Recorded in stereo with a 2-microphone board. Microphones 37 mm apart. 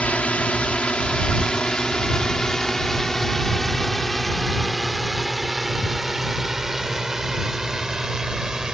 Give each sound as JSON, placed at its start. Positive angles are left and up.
{"t": 0.0, "sound": "a drone", "side_deg": 40}